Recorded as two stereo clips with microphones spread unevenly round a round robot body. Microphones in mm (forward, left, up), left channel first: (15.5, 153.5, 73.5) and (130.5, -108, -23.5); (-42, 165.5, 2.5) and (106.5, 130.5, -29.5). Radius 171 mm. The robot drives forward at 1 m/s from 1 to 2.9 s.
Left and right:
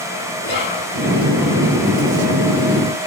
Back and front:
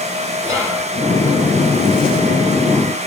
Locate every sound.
0.4 s whispering: 55° left, 4.5 m